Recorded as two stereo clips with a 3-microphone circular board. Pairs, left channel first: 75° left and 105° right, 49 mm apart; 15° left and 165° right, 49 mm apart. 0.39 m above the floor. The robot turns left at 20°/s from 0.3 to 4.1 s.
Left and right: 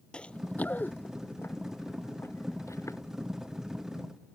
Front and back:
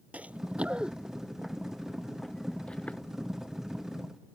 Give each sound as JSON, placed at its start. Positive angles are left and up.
{"t": 0.1, "sound": "running footsteps", "azimuth_deg": 140}